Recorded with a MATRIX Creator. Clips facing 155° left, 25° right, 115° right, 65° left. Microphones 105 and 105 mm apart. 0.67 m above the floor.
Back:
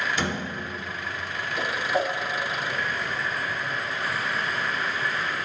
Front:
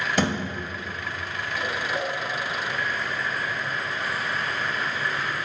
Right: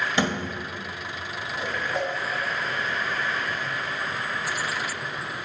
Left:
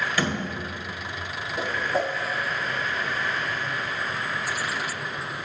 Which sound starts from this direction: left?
A whoosh, at 1.6 s.